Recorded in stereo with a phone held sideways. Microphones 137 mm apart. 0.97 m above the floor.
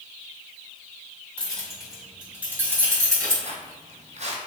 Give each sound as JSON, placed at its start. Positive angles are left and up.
{"t": 1.4, "sound": "keys jangling", "side_deg": 10, "distance_m": 1.8}
{"t": 3.4, "sound": "footsteps", "side_deg": -50, "distance_m": 1.4}